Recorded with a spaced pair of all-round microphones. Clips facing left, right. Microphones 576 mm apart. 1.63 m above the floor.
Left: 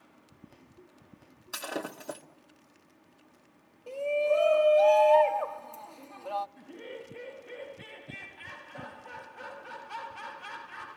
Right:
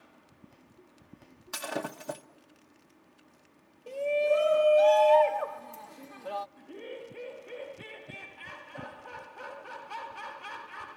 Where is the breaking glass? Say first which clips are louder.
Right 1 dB; 30° right (ahead or behind), 1.1 m.